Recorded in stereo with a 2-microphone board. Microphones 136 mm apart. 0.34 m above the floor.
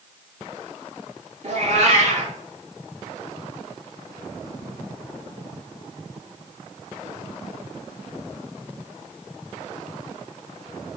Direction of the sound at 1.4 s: 55° right (ahead or behind).